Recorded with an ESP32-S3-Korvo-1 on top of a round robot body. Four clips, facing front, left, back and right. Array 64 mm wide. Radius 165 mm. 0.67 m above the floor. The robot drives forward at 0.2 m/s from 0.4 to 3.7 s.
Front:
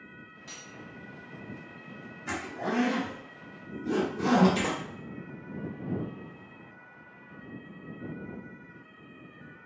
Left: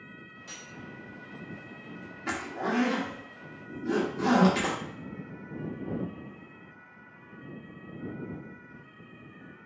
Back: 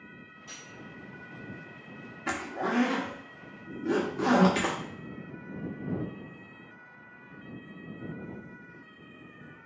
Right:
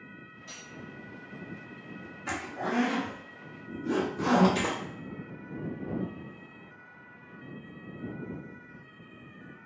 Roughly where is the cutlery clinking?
Ahead left.